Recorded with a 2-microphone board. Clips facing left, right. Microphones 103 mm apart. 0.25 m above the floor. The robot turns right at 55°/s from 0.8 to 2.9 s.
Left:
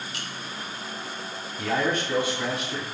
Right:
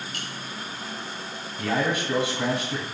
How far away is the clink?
About 0.9 m.